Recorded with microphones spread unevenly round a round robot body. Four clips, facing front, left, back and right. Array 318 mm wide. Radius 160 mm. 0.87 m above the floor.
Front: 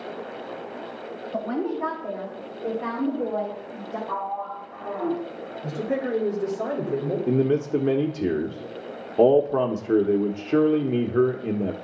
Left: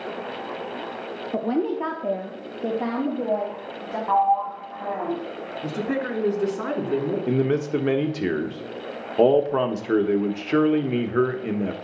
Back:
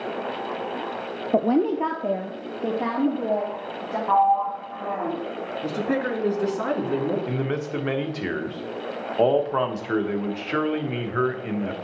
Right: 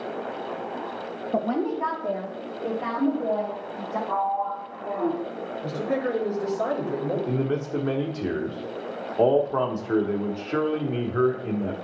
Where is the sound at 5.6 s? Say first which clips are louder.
Even, back 1 dB; 135° left, 3 m.